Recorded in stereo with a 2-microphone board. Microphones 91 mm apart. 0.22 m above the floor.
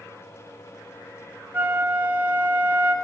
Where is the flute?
25° right (ahead or behind), 0.5 m.